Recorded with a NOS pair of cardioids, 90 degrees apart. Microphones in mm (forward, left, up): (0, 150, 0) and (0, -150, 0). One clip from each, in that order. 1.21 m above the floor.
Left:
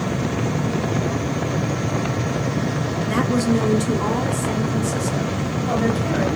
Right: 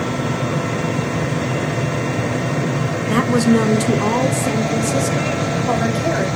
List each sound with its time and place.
3.1 s a woman speaking: 20° right, 0.9 m; by 6.3 s 45° right, 2.5 m